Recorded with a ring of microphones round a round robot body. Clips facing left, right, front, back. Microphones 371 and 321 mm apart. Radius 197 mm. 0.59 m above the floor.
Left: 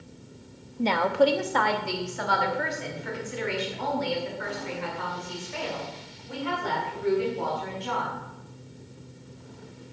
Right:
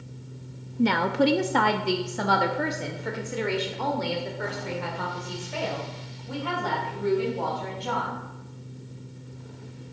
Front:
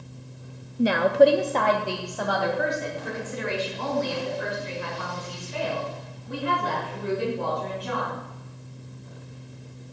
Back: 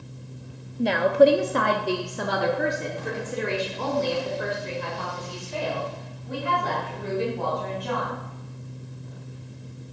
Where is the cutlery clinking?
No cutlery clinking in this recording.